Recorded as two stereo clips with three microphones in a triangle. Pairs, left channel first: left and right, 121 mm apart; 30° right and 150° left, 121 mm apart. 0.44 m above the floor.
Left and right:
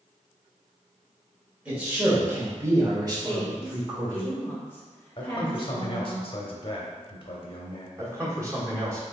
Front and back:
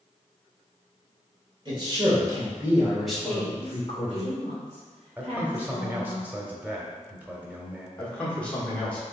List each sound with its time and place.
1.6 s a man speaking: 170° right, 1.8 m; by 4.2 s 60° right, 1.5 m
3.2 s a woman speaking: 160° left, 1.5 m
5.2 s a man speaking: 80° left, 0.9 m
8.0 s a man speaking: 95° right, 1.3 m